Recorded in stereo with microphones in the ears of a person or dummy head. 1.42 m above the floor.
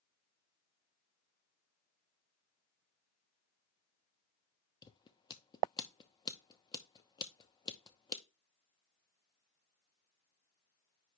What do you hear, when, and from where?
4.8 s scissors: 20° left (ahead or behind), 0.9 m